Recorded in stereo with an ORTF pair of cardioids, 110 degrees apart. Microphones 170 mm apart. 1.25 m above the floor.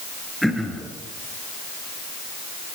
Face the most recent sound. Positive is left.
turn(degrees=0)